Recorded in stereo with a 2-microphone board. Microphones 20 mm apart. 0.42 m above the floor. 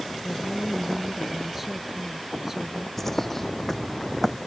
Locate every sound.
0.2 s a woman speaking: centre (ahead or behind); by 2.9 s 20° right (ahead or behind)
3.0 s a bird: 15° left (ahead or behind)